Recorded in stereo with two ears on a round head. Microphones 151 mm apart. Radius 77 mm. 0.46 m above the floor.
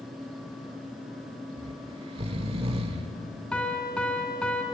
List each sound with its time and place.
1.6 s snoring: 35° right (ahead or behind), 1.3 m
3.5 s a piano: 5° left (ahead or behind), 3 m